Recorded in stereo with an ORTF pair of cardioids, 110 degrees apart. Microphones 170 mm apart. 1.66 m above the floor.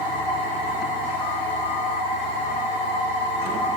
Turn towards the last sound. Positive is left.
turn(degrees=60)